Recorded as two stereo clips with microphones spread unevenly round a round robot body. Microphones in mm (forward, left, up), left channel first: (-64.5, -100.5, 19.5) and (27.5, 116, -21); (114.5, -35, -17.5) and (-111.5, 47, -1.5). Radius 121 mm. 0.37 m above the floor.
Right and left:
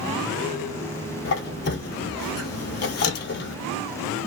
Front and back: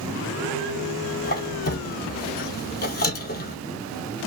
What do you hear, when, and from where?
1.2 s a squeak: 70° right, 0.7 m